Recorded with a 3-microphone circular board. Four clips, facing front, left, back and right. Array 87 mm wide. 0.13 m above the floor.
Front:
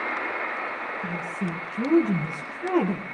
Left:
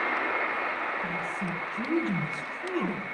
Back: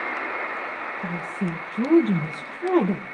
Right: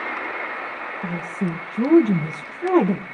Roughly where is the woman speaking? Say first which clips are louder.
Right 5 dB, back 4 dB; right.